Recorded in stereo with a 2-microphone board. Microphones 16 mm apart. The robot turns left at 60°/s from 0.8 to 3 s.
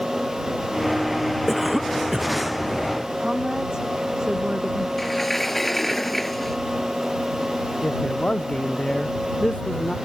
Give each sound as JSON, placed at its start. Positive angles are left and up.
{"t": 1.5, "sound": "a cough", "azimuth_deg": 10}
{"t": 3.2, "sound": "a woman speaking", "side_deg": -40}
{"t": 5.0, "sound": "a sliding door", "side_deg": 15}
{"t": 7.8, "sound": "a man speaking", "side_deg": 75}